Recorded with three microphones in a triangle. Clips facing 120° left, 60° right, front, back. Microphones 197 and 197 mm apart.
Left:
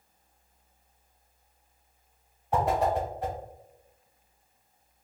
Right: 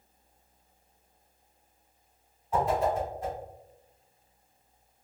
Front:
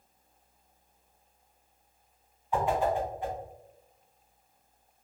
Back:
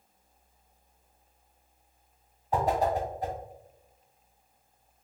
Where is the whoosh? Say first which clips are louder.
Left 1 dB, back 1 dB; 135° left, 0.8 m.